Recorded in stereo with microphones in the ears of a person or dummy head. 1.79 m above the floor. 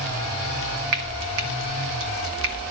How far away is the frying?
About 2 m.